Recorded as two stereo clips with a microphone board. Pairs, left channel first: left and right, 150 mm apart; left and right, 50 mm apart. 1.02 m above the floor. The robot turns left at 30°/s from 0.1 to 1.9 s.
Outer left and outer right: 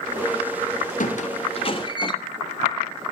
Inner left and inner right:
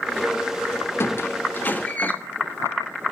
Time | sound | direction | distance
1.0 | a squeak | 60° left (ahead or behind) | 2 m